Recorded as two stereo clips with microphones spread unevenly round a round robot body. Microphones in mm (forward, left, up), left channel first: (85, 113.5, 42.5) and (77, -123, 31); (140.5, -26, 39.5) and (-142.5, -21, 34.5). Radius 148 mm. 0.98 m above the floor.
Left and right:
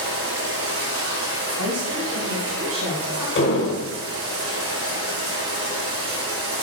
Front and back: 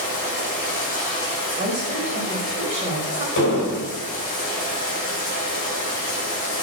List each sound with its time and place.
0.0 s running water: 65° right, 4 m
1.6 s a woman speaking: 115° right, 4 m
3.4 s an explosion: 55° left, 5 m